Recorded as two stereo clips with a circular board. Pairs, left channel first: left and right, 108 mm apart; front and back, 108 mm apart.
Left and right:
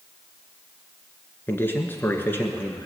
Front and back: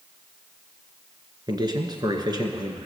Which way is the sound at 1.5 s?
155° left.